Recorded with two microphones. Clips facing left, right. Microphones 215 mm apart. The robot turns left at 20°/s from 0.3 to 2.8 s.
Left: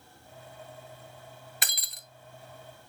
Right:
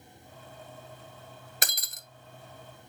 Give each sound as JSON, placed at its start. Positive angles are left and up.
{"t": 1.6, "sound": "breaking glass", "side_deg": -45, "distance_m": 0.8}